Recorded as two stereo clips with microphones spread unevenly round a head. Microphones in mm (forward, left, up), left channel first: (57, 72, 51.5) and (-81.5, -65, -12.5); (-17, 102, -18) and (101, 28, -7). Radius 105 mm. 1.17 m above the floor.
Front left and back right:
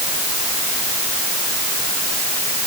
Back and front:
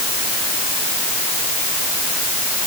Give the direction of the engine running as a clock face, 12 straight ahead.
I don't hear an engine running.